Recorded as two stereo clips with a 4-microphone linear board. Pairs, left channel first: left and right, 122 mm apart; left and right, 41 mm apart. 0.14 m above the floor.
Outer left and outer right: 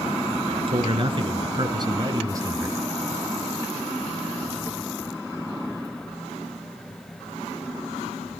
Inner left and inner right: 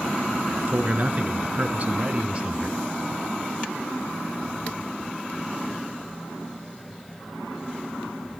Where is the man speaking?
45° right (ahead or behind), 2.0 m; by 2.8 s 20° right (ahead or behind), 1.3 m.